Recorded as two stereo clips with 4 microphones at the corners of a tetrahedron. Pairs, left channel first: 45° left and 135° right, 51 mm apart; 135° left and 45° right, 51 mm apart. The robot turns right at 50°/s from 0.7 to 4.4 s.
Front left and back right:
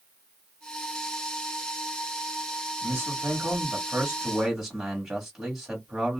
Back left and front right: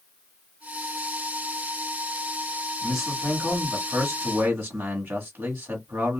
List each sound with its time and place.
2.8 s a man speaking: 135° right, 1.4 m; by 6.2 s 55° right, 1.4 m